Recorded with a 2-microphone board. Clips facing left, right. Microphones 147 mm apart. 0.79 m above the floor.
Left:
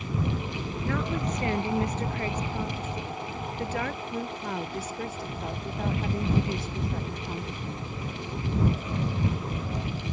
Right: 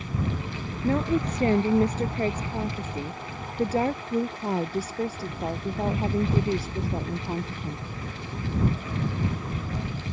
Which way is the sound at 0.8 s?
35° right (ahead or behind).